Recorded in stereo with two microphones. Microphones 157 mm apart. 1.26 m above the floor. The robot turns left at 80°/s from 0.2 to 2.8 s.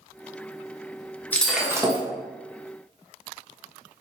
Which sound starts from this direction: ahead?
Breaking glass, at 1.3 s.